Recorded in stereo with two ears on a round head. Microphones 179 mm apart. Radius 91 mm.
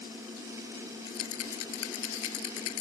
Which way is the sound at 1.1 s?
85° left.